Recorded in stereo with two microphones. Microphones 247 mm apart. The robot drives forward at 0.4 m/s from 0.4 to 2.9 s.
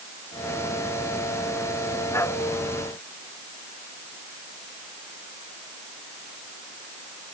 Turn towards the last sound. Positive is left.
No sound to turn to.